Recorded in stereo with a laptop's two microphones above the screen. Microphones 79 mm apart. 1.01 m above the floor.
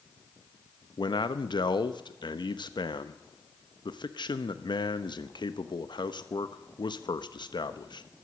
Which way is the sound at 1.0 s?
75° left (ahead or behind).